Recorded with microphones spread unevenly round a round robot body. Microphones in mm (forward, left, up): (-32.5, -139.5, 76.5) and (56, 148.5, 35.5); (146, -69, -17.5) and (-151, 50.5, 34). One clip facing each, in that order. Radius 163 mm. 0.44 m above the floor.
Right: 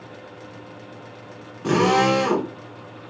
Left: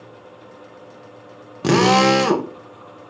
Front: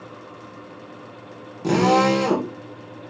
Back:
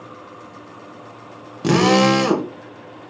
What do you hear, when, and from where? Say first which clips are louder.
1.6 s a drill: left 3 dB, back 3 dB; 100° left, 0.7 m